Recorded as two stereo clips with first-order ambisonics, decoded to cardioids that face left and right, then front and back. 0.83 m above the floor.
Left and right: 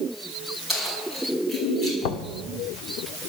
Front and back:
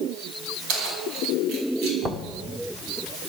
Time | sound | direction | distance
0.7 | keys jangling | straight behind | 5 m
2.0 | knocking | 105° left | 1.2 m